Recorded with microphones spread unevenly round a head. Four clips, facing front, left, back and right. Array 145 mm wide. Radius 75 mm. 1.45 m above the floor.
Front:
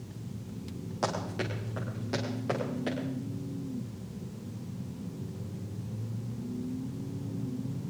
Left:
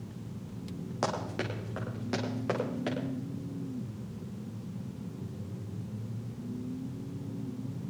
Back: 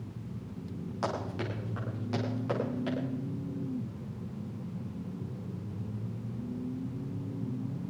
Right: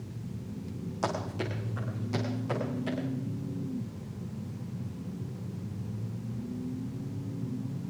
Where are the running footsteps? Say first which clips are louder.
Even, front 2 dB; 75° left, 5 m; by 3.0 s 70° left, 7.5 m.